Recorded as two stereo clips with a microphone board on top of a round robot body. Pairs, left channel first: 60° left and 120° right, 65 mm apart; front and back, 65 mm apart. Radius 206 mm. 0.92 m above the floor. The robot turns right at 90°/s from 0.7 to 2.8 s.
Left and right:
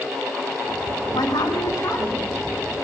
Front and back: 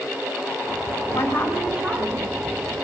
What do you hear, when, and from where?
1.1 s a woman speaking: 50° left, 8.5 m; by 2.4 s 160° left, 8.5 m